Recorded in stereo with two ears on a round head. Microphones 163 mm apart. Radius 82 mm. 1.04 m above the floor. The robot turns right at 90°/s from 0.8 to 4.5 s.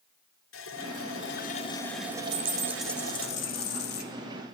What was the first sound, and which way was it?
A running tap, 75° left.